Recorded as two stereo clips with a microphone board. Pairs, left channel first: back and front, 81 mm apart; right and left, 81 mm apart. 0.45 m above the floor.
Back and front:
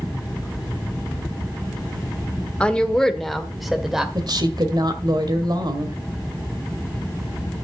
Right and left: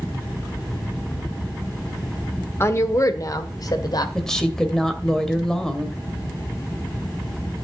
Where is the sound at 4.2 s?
10° right, 2 m.